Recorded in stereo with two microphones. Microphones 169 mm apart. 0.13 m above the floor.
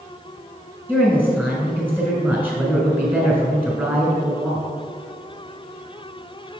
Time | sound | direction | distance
0.9 | a woman speaking | 10° right (ahead or behind) | 1.1 m